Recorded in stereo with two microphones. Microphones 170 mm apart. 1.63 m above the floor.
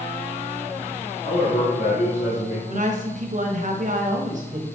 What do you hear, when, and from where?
1.2 s a man speaking: 50° left (ahead or behind), 1.9 m
2.7 s a woman speaking: 50° right (ahead or behind), 1.4 m